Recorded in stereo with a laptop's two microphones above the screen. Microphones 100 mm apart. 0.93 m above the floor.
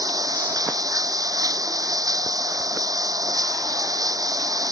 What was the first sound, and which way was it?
Running water, 35° right (ahead or behind).